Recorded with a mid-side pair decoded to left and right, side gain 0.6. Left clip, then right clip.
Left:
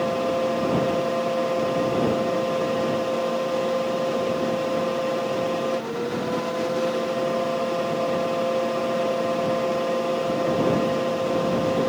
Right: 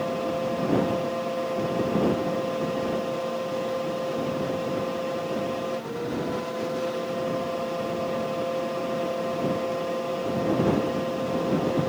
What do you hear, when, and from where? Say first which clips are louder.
0.0 s a fan: left 4 dB; 30° left